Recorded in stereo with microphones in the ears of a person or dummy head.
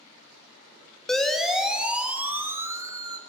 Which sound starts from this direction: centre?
A siren, at 1.1 s.